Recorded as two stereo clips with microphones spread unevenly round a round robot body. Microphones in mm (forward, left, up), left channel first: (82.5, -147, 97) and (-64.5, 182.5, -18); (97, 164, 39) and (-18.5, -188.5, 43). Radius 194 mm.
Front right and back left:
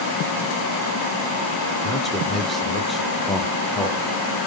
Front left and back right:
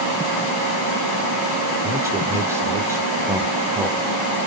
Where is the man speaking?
175° left, 1.2 m.